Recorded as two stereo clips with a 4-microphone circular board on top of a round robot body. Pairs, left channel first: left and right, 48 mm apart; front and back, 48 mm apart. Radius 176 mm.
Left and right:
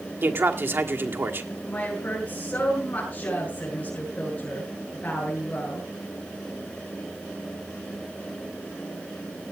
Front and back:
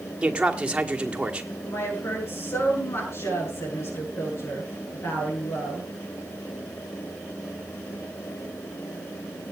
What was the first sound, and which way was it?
A man speaking, 115° right.